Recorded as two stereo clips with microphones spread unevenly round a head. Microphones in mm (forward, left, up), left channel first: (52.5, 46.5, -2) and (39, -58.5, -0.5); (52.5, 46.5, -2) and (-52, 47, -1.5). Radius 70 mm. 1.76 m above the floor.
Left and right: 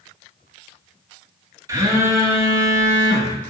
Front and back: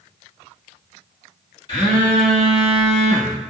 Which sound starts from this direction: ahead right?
A phone buzzing, at 1.7 s.